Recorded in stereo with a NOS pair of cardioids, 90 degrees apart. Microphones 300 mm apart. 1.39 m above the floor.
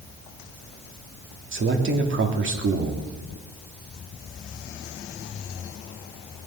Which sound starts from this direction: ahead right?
A man speaking, at 1.5 s.